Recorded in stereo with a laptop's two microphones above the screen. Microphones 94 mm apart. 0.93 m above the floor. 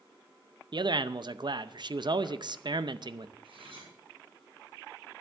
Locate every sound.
0.7 s a man speaking: 60° right (ahead or behind), 0.6 m
3.4 s cutlery clinking: 75° right (ahead or behind), 7 m